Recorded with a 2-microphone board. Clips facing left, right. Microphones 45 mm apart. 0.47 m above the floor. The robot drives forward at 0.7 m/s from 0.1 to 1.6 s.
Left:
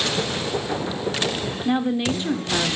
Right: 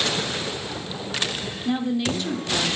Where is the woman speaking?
25° left (ahead or behind), 0.8 m.